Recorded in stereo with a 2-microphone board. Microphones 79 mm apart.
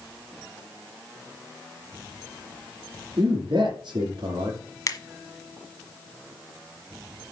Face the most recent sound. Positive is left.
turn(degrees=45)  # may be behind; listen again after turning